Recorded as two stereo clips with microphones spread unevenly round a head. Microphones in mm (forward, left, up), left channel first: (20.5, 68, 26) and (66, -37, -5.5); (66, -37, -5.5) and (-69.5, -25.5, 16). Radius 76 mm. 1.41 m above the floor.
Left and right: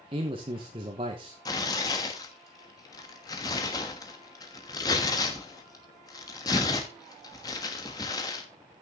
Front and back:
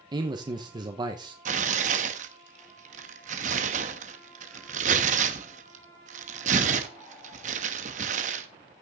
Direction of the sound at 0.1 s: 125° right.